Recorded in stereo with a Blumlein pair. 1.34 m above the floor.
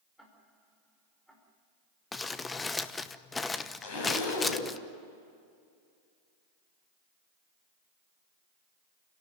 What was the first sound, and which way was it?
Ticking, straight ahead.